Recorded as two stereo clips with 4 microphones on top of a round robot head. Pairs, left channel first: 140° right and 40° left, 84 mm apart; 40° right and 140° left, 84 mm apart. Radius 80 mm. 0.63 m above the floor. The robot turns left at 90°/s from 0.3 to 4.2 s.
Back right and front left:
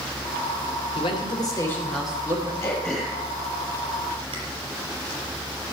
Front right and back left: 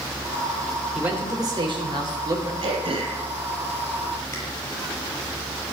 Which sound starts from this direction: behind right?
A man speaking, at 0.9 s.